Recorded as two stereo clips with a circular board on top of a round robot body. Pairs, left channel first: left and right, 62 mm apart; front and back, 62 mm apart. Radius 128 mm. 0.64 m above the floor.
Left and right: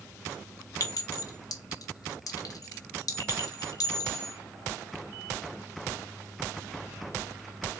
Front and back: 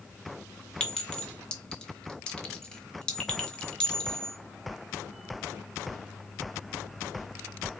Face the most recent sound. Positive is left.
turn(degrees=75)